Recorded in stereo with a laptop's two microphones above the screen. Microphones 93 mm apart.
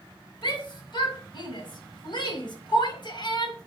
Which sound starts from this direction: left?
A shout, at 0.4 s.